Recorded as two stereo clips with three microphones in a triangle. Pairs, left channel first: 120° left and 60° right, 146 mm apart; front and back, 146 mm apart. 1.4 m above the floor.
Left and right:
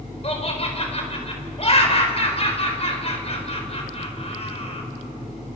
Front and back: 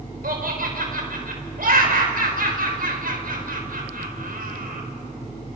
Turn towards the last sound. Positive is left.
turn(degrees=170)